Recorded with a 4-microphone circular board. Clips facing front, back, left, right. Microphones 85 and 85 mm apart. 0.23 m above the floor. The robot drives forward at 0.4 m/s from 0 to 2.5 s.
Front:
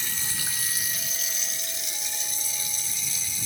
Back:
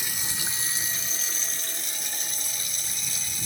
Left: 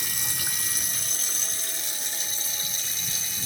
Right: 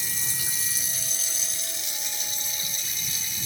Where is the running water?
105° left, 1.0 m; by 3.5 s 145° left, 1.6 m.